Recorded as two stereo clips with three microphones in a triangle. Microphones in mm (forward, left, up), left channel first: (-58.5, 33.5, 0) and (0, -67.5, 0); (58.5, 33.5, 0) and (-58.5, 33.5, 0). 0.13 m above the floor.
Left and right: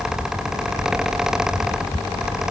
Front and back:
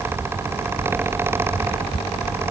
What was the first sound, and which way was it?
Only background noise.